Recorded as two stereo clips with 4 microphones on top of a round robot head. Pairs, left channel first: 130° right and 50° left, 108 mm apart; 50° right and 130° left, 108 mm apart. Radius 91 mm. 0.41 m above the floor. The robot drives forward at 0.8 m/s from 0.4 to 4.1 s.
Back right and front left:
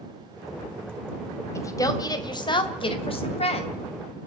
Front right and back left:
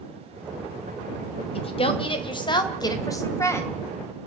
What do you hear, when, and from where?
1.6 s a woman speaking: 70° right, 2.5 m; by 3.8 s 115° right, 2.5 m